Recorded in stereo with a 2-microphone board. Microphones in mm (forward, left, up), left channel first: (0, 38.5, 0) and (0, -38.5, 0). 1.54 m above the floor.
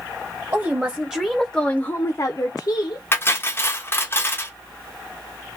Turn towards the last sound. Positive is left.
turn(degrees=30)  # may be behind; listen again after turning